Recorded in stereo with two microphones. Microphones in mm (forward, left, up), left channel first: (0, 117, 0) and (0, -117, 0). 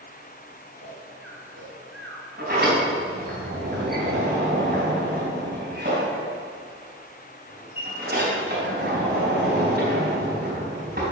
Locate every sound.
0.7 s snoring: 80° right, 4 m
2.4 s a sliding door: 45° right (ahead or behind), 4.5 m